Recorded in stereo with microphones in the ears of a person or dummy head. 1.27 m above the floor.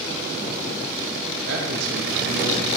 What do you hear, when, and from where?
1.5 s a man speaking: 70° right (ahead or behind), 3.5 m